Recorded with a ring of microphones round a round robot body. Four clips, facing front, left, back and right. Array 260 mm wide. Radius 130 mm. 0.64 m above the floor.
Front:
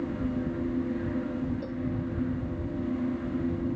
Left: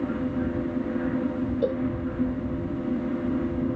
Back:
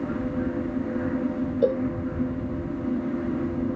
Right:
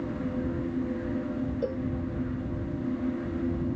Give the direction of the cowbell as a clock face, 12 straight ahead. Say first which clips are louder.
Left 8 dB, back 12 dB; 6 o'clock.